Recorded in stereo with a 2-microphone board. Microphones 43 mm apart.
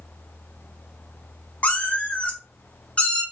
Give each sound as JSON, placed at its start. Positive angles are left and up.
{"t": 1.6, "sound": "a cat meowing", "side_deg": 30, "distance_m": 0.7}